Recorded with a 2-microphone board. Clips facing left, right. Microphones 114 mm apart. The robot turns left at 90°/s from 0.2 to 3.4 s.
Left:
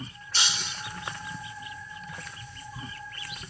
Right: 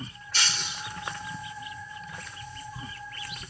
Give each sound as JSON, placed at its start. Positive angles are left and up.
{"t": 0.3, "sound": "breaking glass", "azimuth_deg": 25}